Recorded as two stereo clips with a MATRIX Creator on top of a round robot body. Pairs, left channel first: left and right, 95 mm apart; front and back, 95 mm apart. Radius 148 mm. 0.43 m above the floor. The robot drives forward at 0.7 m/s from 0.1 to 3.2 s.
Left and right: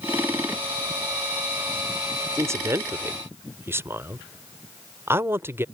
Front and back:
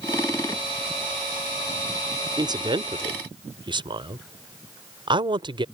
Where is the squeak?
I don't hear a squeak.